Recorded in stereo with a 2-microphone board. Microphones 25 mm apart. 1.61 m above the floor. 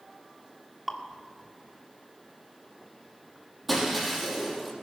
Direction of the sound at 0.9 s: 5° right (ahead or behind).